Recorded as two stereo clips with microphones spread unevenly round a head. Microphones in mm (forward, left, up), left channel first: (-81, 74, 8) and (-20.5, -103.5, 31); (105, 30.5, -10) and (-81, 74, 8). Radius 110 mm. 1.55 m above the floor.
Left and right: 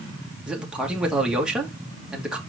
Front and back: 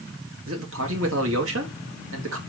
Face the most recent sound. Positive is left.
turn(degrees=-155)